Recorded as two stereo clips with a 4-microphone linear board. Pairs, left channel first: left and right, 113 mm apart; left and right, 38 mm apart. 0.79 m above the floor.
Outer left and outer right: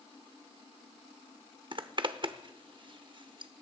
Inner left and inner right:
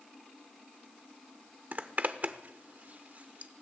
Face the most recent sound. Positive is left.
turn(degrees=-45)  # may be behind; listen again after turning